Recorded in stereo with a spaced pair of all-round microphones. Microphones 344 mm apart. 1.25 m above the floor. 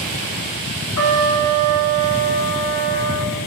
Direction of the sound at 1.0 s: 60° left (ahead or behind).